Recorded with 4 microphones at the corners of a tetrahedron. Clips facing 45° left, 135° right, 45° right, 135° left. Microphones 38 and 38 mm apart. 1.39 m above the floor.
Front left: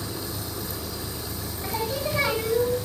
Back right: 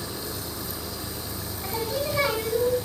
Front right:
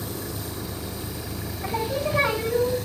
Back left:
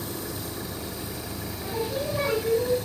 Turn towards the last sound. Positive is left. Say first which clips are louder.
# even, front right 3 dB
turn(degrees=-30)